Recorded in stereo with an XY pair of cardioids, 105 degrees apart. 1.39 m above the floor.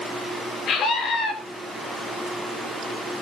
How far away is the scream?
About 5 m.